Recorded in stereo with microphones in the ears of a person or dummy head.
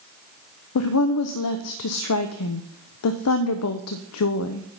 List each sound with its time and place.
0.8 s a woman speaking: 80° left, 0.5 m